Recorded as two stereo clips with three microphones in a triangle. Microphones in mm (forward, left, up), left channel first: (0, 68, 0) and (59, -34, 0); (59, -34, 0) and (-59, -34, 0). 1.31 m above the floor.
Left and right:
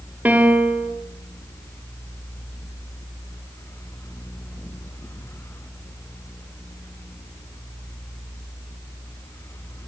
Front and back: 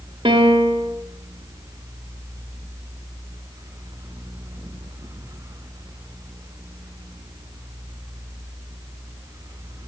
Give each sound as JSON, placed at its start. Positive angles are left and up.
{"t": 0.2, "sound": "a piano", "azimuth_deg": -135, "distance_m": 2.5}